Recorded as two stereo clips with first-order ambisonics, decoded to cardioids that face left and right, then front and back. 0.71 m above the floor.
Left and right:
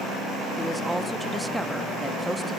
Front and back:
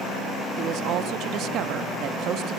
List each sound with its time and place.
0.6 s a woman speaking: 175° right, 0.6 m